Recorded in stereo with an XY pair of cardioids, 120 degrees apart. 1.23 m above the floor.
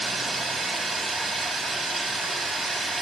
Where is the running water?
30° right, 6 m.